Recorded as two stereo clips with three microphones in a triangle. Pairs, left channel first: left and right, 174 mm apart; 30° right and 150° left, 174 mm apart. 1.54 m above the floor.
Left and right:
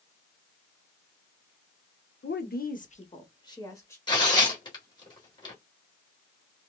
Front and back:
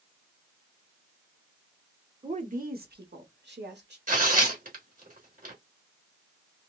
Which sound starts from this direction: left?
A woman speaking, at 2.2 s.